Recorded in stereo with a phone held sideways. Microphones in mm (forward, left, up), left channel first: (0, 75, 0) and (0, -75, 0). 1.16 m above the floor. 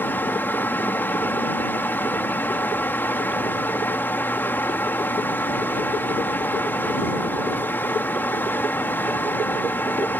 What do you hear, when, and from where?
0.0 s a fan: 15° left (ahead or behind)